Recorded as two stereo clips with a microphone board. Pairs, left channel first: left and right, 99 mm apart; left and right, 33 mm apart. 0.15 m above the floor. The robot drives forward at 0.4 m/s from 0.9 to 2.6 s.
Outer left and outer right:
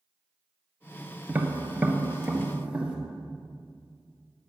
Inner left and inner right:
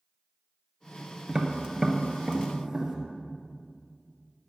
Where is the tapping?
20° right (ahead or behind), 1.2 m; by 3.0 s 15° right (ahead or behind), 1.6 m.